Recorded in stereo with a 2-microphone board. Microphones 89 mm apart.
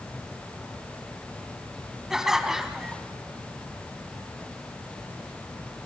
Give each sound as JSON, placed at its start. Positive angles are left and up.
{"t": 2.1, "sound": "laughter", "side_deg": -5, "distance_m": 1.3}